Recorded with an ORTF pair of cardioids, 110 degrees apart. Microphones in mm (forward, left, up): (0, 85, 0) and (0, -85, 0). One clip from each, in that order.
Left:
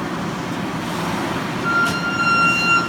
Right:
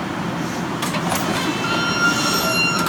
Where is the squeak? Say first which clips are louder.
Left 1 dB; 45° right, 0.9 m.